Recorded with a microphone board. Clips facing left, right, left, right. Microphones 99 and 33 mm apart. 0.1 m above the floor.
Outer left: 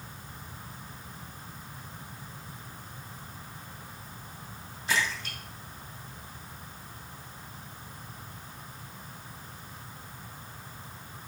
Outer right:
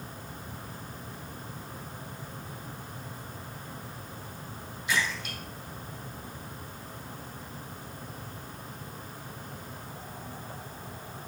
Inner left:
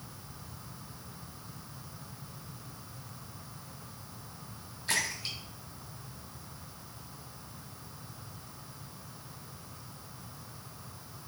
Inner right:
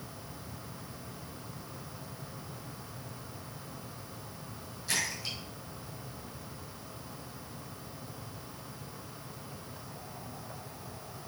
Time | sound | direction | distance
4.9 | a splash | 35° left (ahead or behind) | 3.5 m